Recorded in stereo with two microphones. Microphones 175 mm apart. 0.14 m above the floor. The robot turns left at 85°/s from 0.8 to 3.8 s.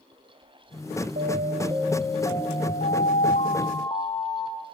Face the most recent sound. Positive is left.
turn(degrees=30)